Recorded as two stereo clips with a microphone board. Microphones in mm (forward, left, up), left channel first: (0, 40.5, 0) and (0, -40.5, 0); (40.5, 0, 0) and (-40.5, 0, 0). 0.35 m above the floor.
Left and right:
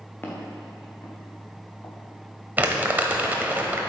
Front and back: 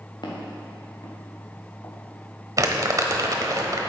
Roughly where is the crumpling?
Behind right.